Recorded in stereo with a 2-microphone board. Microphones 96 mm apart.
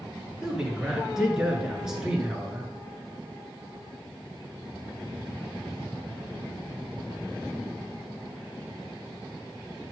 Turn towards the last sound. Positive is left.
turn(degrees=-5)  # may be behind; listen again after turning